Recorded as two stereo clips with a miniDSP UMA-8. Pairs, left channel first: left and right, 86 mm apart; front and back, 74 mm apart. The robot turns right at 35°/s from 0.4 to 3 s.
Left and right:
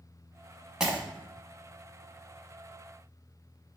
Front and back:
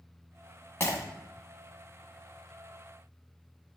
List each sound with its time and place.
0.8 s breaking glass: 15° right, 0.9 m; by 1.0 s 5° right, 0.9 m